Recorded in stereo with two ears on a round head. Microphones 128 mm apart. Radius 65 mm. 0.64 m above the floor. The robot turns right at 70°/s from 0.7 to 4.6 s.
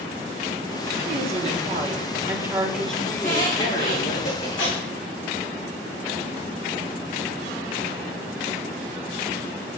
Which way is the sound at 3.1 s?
45° left (ahead or behind).